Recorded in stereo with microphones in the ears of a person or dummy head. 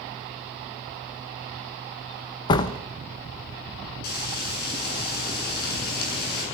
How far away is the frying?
About 9.5 m.